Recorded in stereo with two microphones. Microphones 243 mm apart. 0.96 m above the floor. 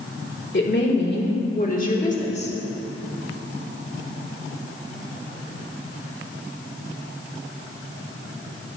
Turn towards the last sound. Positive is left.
turn(degrees=25)  # may be behind; listen again after turning